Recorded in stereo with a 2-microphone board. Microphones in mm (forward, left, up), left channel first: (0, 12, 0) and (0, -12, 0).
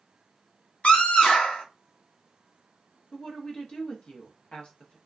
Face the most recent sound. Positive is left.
turn(degrees=50)  # may be behind; listen again after turning